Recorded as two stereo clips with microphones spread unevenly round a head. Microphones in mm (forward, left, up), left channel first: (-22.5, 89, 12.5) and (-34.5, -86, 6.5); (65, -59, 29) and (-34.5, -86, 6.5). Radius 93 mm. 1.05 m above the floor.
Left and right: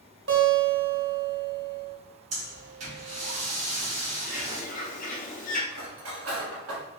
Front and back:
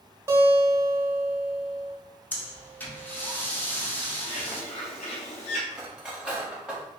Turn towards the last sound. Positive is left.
turn(degrees=-80)